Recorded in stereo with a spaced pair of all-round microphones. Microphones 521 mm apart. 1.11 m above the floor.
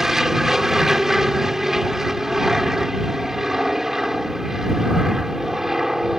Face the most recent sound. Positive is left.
turn(degrees=0)  # may be behind; listen again after turning